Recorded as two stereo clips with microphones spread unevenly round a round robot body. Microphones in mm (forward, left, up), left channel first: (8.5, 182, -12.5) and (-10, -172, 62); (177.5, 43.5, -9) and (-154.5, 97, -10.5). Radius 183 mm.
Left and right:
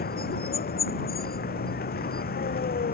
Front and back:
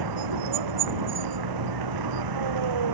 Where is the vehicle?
155° left.